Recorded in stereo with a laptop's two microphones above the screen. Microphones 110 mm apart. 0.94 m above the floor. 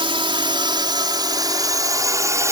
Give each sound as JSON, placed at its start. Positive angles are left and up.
{"t": 0.0, "sound": "a drone", "side_deg": -50}